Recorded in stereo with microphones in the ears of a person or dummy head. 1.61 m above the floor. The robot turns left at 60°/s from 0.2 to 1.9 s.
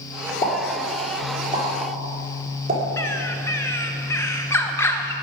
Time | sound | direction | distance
0.4 | a pop | 50° left (ahead or behind) | 4.5 m
3.0 | a bird | 15° left (ahead or behind) | 0.9 m